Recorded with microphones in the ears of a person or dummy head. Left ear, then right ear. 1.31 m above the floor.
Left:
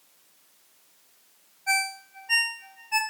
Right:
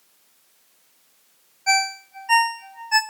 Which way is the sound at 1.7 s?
60° right (ahead or behind).